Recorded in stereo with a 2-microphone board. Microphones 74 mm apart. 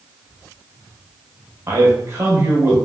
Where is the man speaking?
40° right (ahead or behind), 1.0 m.